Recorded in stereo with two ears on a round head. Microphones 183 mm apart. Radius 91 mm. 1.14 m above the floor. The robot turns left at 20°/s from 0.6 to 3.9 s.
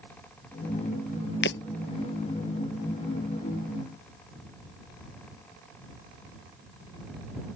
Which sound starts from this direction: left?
Breaking glass, at 1.4 s.